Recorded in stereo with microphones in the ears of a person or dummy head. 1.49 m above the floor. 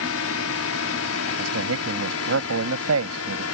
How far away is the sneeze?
I don't hear a sneeze.